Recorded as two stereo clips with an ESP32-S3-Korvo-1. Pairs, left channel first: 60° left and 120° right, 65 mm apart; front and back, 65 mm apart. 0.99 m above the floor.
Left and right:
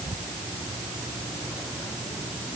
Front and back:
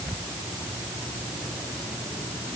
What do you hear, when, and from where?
Only background noise.